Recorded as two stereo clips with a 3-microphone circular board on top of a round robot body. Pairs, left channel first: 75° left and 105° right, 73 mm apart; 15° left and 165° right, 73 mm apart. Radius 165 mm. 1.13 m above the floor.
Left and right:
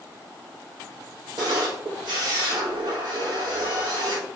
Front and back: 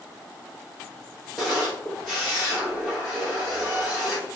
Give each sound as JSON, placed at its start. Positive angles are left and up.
{"t": 1.4, "sound": "a camera shutter", "azimuth_deg": -75, "distance_m": 0.9}